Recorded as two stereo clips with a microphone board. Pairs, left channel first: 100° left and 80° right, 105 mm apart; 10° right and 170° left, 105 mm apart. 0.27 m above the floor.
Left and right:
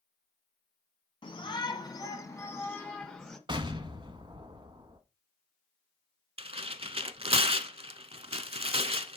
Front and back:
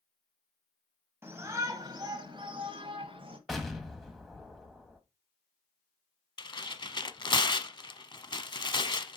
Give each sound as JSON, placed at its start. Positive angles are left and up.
{"t": 1.2, "sound": "a shout", "azimuth_deg": 110, "distance_m": 1.6}
{"t": 3.5, "sound": "an explosion", "azimuth_deg": -100, "distance_m": 1.3}
{"t": 6.4, "sound": "tearing paper", "azimuth_deg": -55, "distance_m": 0.7}